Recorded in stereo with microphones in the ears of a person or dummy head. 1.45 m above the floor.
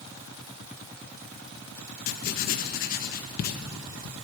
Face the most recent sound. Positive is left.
turn(degrees=55)  # may be behind; listen again after turning